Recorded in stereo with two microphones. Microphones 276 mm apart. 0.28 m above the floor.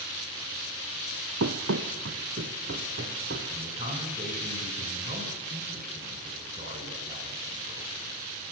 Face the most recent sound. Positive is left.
turn(degrees=-30)  # may be behind; listen again after turning